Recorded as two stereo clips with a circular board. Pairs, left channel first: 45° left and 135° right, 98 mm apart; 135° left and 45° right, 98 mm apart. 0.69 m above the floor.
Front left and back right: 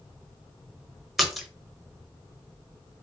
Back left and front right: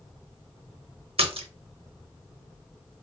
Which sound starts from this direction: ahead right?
A splash, at 1.2 s.